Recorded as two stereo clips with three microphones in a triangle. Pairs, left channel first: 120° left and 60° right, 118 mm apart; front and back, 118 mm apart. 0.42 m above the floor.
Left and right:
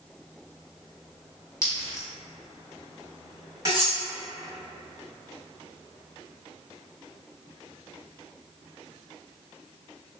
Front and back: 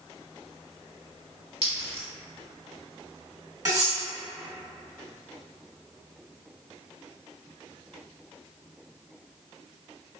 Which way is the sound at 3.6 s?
120° right.